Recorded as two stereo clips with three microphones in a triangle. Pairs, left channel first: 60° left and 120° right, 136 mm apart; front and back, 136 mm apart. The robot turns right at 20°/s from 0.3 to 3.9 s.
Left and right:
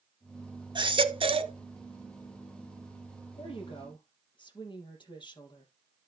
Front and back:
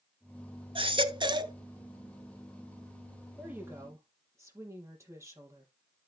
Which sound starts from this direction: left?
A woman speaking, at 3.4 s.